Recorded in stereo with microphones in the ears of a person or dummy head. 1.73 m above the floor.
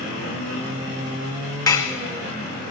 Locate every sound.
1.7 s dishes clattering: 20° left (ahead or behind), 2 m